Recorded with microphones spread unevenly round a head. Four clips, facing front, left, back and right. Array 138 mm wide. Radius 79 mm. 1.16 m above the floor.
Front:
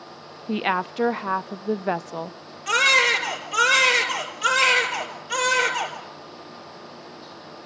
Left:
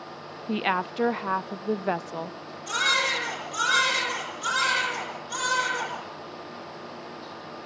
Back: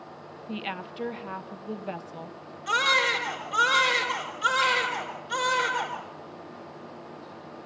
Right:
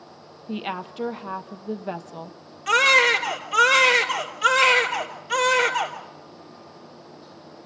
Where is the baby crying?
65° right, 3.5 m.